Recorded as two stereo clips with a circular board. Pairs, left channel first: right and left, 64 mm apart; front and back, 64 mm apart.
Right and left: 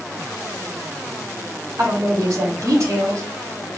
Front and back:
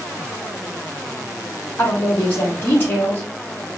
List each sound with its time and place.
1.8 s a woman speaking: 55° left, 5 m